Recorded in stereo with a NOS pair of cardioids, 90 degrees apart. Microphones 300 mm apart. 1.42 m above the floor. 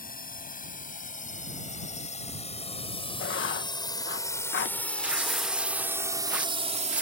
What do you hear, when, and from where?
0.0 s a drone: 30° left; by 7.0 s 25° right
3.2 s writing: 40° left
5.0 s tearing paper: 5° right